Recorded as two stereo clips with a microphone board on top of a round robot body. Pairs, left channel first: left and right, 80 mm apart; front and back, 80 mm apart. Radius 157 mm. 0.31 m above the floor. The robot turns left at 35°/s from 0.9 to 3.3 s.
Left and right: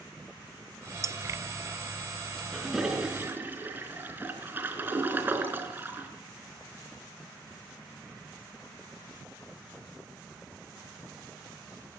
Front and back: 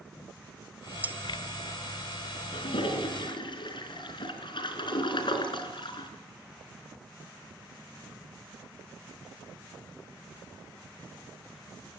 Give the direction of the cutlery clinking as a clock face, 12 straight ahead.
4 o'clock.